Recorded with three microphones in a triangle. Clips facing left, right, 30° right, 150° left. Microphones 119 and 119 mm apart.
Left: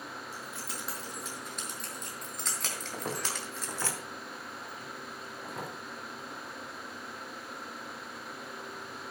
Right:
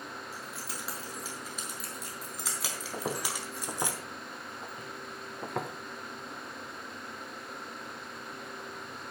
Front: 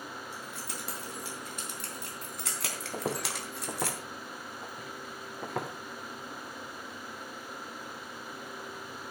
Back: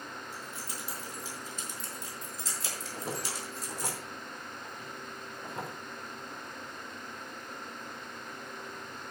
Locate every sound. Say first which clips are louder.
0.3 s keys jangling: even, front 1 dB; straight ahead, 5.5 m; by 3.9 s 20° right, 2 m
2.9 s footsteps: right 2 dB, front 4 dB; 15° right, 2.5 m; by 5.7 s 60° right, 3 m